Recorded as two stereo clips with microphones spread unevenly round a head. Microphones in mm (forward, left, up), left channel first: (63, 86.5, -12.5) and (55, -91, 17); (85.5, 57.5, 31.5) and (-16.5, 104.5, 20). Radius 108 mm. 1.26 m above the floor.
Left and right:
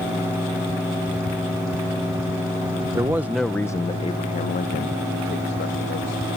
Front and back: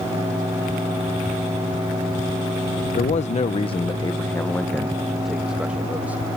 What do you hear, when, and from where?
3.0 s a man speaking: 20° right; by 6.4 s 80° left